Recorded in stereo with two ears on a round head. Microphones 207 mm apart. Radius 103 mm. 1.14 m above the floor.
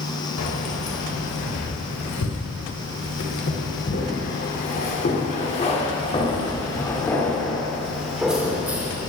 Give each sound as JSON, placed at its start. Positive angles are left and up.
{"t": 0.4, "sound": "keys jangling", "side_deg": 75, "distance_m": 4.0}